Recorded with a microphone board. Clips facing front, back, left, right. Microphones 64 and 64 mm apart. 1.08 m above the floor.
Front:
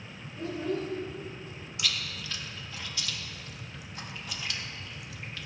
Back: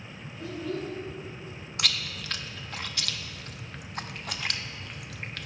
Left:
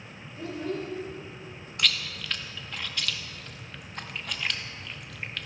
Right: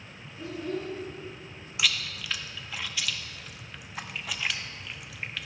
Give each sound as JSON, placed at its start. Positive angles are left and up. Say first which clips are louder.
{"t": 0.4, "sound": "a child speaking", "louder": "front 2 dB, left 1 dB", "azimuth_deg": 50, "distance_m": 3.0}
{"t": 1.8, "sound": "chewing", "louder": "back 2 dB, even", "azimuth_deg": -175, "distance_m": 0.7}